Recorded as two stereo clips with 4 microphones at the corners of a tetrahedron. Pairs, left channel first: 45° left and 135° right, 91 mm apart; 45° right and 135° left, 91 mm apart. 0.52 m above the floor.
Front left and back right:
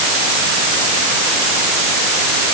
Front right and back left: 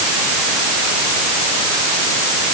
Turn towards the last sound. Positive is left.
No sound to turn to.